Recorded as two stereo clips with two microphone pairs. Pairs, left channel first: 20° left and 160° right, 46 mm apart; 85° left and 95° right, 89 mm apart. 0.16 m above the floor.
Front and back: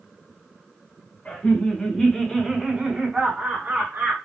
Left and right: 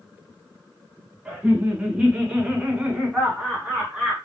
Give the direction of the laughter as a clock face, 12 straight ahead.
1 o'clock.